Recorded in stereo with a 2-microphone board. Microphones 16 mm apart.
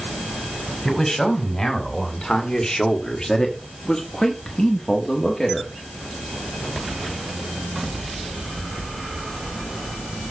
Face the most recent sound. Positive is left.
turn(degrees=15)  # may be behind; listen again after turning